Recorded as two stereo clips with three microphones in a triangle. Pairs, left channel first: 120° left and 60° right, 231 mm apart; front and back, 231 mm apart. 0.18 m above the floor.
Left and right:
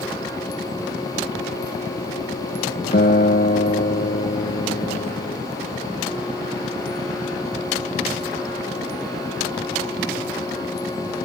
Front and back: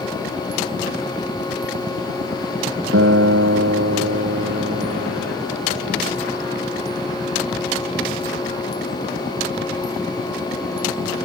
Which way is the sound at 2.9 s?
165° left.